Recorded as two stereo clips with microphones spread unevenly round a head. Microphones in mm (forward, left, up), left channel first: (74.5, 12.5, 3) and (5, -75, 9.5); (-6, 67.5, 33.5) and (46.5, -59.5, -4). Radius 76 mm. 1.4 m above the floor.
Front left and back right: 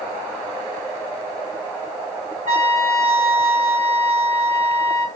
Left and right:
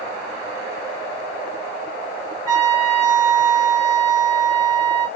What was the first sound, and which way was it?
A trumpet, 140° right.